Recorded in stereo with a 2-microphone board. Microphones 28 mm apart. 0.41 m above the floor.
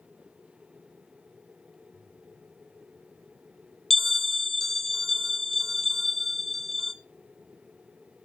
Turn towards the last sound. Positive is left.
turn(degrees=10)  # may be behind; listen again after turning